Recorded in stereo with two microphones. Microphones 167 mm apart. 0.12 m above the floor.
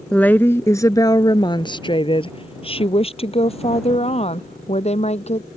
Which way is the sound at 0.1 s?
5° left (ahead or behind).